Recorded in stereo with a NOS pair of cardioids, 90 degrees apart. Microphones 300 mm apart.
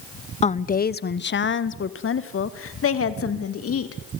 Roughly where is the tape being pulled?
No tape being pulled in this recording.